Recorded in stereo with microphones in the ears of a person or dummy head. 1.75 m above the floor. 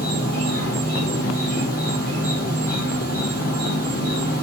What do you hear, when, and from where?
0.0 s an insect: 65° right (ahead or behind), 1.8 m